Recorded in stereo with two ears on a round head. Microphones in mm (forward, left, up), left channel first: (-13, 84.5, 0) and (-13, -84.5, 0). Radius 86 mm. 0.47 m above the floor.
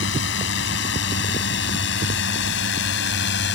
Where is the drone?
70° left (ahead or behind); by 3.5 s 65° left (ahead or behind).